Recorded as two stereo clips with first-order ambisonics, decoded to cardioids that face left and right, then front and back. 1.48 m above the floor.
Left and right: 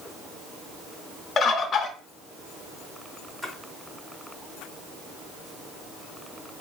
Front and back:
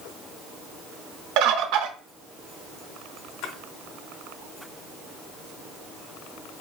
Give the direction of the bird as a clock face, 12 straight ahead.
7 o'clock.